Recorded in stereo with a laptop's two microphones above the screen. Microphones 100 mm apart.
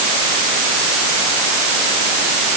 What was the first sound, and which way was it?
Only background noise.